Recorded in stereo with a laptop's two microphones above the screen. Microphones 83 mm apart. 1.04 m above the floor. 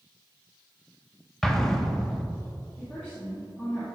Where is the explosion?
5° left (ahead or behind), 0.6 m.